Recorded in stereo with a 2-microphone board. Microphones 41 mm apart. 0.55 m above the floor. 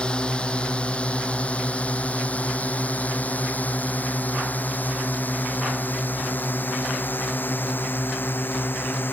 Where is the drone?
25° left (ahead or behind); by 9.1 s 55° left (ahead or behind).